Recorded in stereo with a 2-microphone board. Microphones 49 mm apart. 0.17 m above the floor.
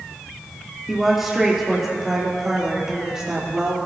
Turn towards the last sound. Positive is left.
turn(degrees=-15)  # may be behind; listen again after turning